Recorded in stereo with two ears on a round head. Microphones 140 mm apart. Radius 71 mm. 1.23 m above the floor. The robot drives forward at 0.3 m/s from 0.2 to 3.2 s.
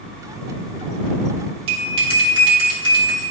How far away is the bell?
About 2 m.